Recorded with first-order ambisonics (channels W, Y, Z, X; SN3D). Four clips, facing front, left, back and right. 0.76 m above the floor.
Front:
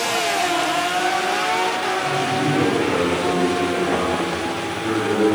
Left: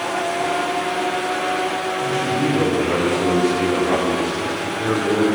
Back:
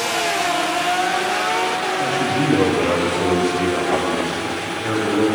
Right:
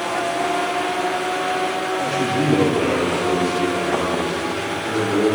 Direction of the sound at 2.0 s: 125° right.